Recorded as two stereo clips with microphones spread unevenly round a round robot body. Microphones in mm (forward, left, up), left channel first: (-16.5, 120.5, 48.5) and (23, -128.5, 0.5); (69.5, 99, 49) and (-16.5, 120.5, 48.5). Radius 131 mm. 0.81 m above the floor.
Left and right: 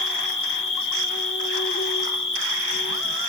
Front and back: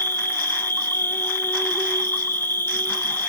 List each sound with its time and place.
0.0 s an insect: 55° left, 1.7 m